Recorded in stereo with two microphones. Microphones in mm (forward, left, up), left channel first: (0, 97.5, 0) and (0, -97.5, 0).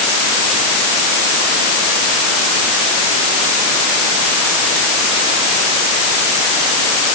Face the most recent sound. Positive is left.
No sound to turn to.